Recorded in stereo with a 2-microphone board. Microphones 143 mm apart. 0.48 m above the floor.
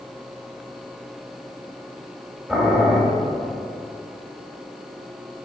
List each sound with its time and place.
2.5 s boiling: centre (ahead or behind), 1.9 m